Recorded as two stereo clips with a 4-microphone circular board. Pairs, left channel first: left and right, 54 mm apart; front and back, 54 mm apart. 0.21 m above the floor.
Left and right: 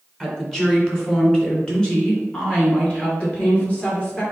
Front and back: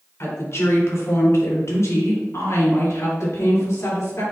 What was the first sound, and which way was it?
A woman speaking, 5° left.